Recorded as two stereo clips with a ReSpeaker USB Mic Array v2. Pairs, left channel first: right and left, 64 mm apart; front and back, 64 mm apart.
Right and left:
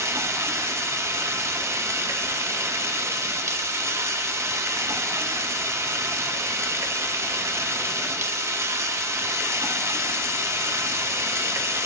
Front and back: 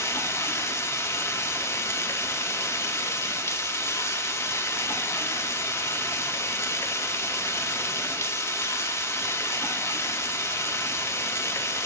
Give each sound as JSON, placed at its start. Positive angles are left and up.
{"t": 0.0, "sound": "running water", "azimuth_deg": 45, "distance_m": 2.5}